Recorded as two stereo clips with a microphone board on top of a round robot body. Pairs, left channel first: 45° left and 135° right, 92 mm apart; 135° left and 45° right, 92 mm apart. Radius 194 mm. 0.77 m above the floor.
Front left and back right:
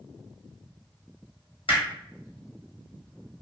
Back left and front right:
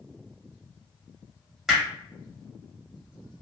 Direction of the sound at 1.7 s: 45° left.